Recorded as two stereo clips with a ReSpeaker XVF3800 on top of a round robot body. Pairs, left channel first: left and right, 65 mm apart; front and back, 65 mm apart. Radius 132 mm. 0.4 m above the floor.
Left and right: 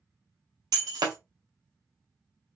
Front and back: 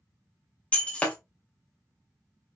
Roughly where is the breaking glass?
Right.